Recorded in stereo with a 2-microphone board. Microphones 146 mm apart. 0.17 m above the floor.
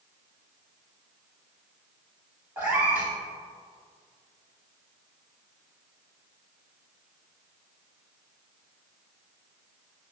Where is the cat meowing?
15° right (ahead or behind), 3 m.